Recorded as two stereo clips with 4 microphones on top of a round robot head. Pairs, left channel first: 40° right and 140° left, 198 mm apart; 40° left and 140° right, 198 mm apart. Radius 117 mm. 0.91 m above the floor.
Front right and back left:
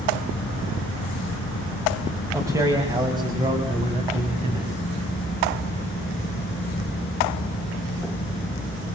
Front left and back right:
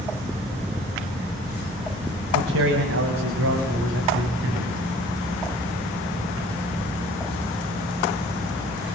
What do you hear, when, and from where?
2.3 s a man speaking: 145° right, 5 m; by 5.0 s 160° right, 7 m